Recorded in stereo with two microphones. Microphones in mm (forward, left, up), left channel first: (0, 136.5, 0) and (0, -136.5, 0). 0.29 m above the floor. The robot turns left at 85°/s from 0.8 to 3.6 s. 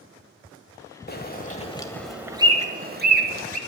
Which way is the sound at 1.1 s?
35° left (ahead or behind).